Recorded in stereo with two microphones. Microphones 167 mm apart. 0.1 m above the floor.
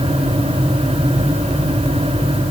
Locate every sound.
Only background noise.